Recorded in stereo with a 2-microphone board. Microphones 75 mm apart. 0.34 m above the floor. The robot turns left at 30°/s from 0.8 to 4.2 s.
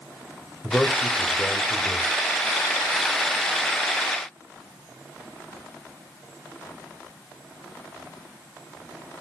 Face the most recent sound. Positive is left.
turn(degrees=-85)